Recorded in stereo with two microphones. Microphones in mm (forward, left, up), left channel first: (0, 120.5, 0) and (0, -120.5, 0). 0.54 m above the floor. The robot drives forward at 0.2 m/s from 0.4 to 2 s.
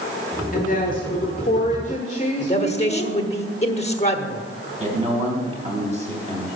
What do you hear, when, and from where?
0.5 s a woman speaking: 35° left (ahead or behind), 1.3 m; by 3.1 s 30° left (ahead or behind), 1.5 m
2.4 s a man speaking: 25° left (ahead or behind), 1.2 m
4.8 s a man speaking: 30° right (ahead or behind), 3.5 m